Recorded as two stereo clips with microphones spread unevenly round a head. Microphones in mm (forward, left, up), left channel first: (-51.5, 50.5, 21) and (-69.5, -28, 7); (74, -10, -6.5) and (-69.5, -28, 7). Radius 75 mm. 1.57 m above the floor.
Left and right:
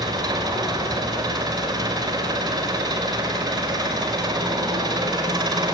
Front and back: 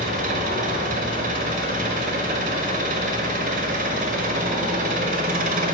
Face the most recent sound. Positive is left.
turn(degrees=-145)